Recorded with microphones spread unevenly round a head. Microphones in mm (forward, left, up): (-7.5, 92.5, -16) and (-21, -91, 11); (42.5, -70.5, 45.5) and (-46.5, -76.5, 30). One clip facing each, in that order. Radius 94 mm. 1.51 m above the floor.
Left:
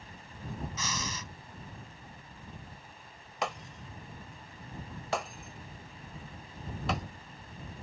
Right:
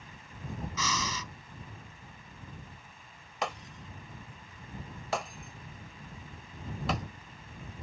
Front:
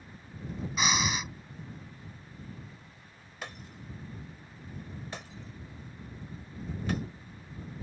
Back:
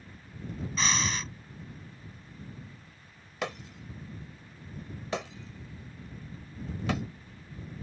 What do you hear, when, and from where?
0.8 s breathing: 75° right
3.4 s breaking glass: straight behind